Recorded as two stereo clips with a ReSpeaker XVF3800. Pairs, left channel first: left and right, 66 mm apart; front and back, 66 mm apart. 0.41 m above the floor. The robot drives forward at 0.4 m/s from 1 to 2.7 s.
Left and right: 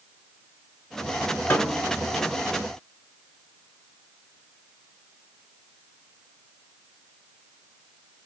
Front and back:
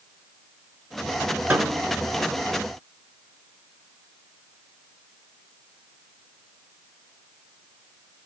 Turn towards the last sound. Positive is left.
turn(degrees=155)